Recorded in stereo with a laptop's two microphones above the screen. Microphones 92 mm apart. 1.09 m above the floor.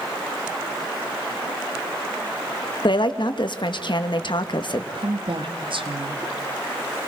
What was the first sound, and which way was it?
A woman speaking, 55° left (ahead or behind).